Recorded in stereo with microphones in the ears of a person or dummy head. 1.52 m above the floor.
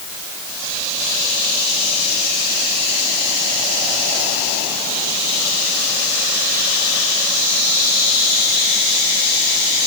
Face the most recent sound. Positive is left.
No sound to turn to.